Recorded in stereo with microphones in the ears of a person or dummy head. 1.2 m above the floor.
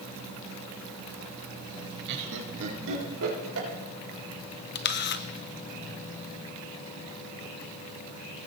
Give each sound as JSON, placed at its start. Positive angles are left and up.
{"t": 2.1, "sound": "laughter", "side_deg": -55, "distance_m": 1.8}
{"t": 4.8, "sound": "a camera shutter", "side_deg": 50, "distance_m": 0.5}